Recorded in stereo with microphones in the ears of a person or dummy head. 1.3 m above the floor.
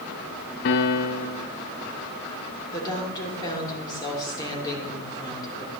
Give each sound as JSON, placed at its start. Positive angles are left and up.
{"t": 0.7, "sound": "a piano", "side_deg": 45, "distance_m": 0.7}
{"t": 2.7, "sound": "a woman speaking", "side_deg": 30, "distance_m": 3.0}